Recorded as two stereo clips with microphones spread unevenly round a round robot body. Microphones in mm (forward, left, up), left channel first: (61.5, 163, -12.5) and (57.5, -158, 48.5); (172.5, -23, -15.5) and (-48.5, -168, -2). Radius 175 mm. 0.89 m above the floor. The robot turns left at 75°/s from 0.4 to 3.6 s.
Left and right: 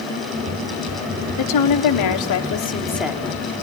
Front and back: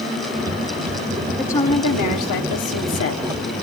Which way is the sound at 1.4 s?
125° left.